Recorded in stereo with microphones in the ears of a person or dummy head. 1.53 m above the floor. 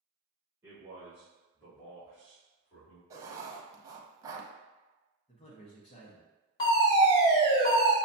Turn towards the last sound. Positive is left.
turn(degrees=25)  # may be behind; listen again after turning